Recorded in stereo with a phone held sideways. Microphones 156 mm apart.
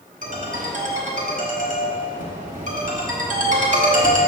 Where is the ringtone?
55° right (ahead or behind), 1.1 m.